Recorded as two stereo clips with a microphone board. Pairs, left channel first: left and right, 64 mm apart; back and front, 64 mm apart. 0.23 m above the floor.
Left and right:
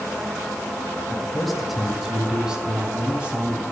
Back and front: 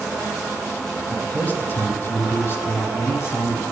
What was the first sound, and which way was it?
A man speaking, 155° left.